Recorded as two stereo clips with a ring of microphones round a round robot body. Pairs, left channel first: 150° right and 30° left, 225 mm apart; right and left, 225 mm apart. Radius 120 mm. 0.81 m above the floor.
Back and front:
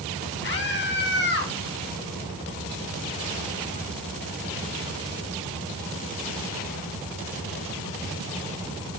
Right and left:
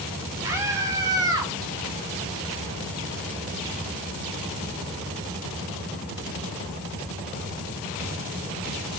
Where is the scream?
170° left, 6.5 m; by 1.5 s 165° left, 6.5 m.